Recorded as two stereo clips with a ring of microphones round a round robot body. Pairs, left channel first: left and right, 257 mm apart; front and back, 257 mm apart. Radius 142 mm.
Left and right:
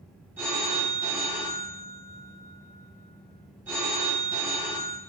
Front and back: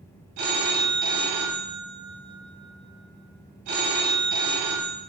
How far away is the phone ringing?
About 0.8 m.